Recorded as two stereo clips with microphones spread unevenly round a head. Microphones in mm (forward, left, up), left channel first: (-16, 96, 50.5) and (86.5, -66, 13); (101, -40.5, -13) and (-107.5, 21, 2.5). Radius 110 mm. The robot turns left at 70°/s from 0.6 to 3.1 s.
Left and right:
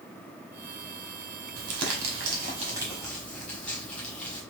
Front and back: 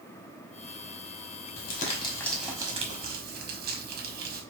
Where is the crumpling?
55° right, 1.2 m; by 4.4 s 160° right, 1.2 m.